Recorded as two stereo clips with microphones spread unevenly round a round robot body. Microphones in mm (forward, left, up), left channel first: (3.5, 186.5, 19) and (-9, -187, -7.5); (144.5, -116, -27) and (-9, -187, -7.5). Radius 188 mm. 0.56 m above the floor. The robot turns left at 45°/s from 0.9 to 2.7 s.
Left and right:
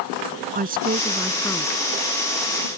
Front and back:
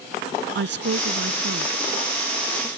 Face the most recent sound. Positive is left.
turn(degrees=120)